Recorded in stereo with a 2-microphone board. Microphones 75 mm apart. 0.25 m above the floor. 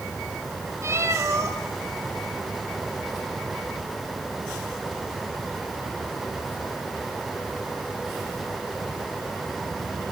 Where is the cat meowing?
35° right (ahead or behind), 2.5 m.